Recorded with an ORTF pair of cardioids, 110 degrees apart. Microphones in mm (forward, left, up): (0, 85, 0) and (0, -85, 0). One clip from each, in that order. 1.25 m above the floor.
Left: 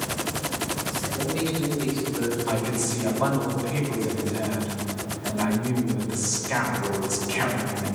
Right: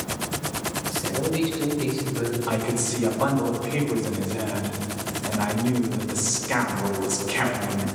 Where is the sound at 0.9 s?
60° right, 5 m; by 3.4 s 45° right, 8.5 m.